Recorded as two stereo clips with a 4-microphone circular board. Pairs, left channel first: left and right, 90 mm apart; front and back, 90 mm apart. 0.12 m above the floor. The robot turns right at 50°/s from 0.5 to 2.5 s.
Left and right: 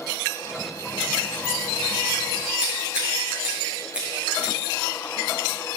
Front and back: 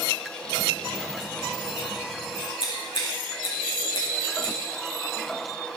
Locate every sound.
2.6 s scissors: 10° right, 7 m